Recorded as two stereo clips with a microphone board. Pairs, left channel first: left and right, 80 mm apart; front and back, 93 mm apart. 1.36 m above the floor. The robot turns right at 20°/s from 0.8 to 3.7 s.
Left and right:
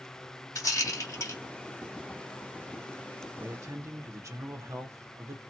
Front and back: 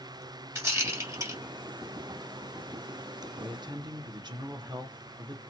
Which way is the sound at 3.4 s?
145° right.